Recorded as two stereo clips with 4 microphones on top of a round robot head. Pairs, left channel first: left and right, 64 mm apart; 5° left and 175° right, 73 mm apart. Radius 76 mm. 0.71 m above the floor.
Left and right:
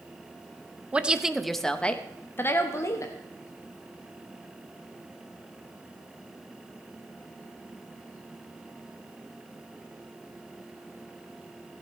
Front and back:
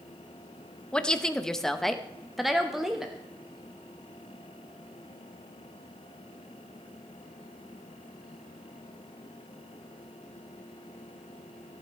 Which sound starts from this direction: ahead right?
A woman speaking, at 0.9 s.